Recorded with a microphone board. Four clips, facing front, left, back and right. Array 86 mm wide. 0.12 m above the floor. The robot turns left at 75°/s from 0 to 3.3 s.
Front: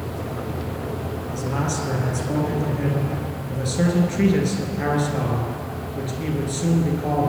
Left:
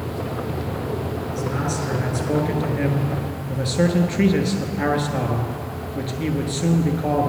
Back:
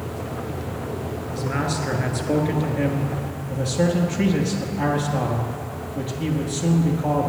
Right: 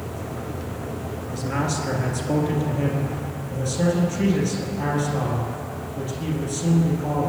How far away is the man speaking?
About 1.7 m.